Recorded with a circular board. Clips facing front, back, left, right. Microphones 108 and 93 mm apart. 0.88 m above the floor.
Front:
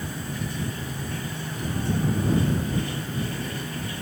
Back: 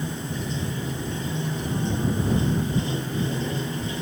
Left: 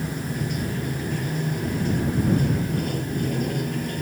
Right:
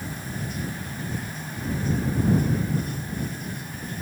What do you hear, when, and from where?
0.0 s running water: 115° left